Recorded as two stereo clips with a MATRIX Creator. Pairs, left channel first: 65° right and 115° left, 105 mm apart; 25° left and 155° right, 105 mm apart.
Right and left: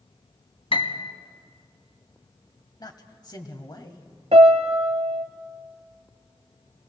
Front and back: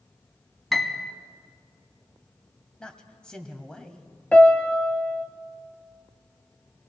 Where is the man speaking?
55° right, 1.3 m.